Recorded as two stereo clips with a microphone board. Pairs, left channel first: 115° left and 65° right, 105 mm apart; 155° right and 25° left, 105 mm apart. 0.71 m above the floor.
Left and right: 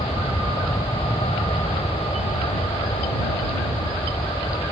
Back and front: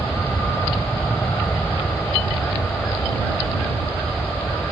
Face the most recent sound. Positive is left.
turn(degrees=120)